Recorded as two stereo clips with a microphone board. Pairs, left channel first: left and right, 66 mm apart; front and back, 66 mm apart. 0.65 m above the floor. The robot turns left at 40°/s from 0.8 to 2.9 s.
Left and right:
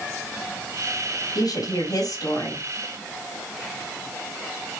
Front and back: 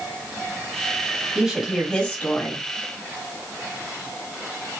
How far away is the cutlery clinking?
No cutlery clinking in this recording.